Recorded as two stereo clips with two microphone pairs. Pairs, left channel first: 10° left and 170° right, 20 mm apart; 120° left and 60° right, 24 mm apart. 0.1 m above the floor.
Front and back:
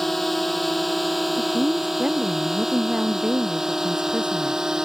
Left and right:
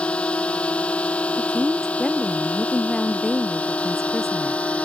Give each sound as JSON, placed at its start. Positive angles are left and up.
{"t": 0.0, "sound": "a drone", "azimuth_deg": 90}
{"t": 1.4, "sound": "a woman speaking", "azimuth_deg": -165}